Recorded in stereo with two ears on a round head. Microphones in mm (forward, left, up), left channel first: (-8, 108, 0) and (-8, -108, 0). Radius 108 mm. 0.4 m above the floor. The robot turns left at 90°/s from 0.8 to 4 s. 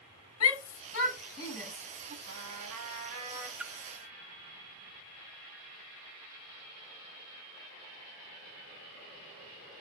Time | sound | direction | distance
0.4 | a shout | 65° left (ahead or behind) | 4 m
2.3 | a trumpet | 65° right | 4 m
3.6 | a splash | 5° right (ahead or behind) | 0.6 m